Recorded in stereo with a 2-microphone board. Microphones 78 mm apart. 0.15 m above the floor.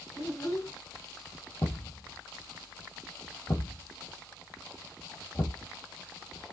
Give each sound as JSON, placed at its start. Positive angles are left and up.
{"t": 0.1, "sound": "a child speaking", "side_deg": 35, "distance_m": 1.4}
{"t": 1.6, "sound": "a thud", "side_deg": 35, "distance_m": 1.3}